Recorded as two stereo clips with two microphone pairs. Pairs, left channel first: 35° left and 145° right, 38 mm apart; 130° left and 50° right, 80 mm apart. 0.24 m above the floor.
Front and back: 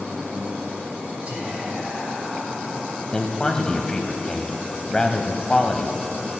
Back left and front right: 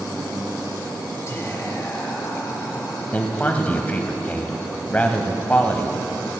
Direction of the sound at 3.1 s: 85° left.